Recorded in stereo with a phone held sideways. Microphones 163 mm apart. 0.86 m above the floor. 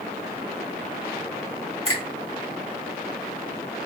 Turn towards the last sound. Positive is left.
turn(degrees=-35)  # may be behind; listen again after turning